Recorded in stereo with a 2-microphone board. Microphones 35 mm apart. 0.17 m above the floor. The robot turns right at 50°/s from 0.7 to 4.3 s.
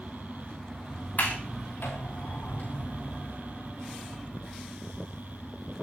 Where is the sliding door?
50° left (ahead or behind), 5 m; by 3.3 s 20° left (ahead or behind), 5 m.